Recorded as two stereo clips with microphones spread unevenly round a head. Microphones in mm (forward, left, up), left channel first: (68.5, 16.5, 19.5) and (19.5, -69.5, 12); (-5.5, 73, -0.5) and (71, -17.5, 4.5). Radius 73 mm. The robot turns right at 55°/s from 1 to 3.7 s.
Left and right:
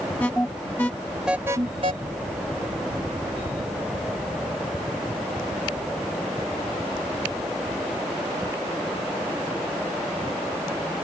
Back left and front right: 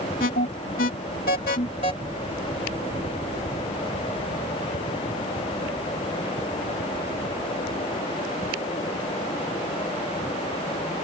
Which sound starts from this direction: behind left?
An alarm, at 0.2 s.